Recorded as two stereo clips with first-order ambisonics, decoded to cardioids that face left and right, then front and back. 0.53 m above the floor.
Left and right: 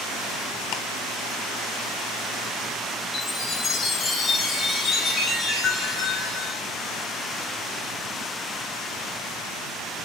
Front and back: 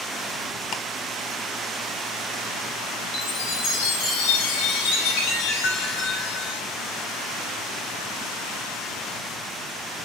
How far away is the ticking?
About 1.4 m.